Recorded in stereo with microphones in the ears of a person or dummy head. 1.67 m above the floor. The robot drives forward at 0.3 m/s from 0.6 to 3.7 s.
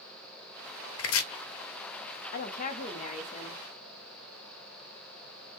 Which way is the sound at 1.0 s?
80° left.